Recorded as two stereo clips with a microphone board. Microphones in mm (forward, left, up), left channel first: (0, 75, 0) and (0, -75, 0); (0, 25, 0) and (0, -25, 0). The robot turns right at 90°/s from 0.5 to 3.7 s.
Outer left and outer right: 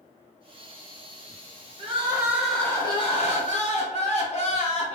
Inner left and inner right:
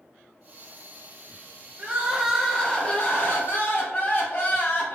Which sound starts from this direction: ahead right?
Crying, at 1.8 s.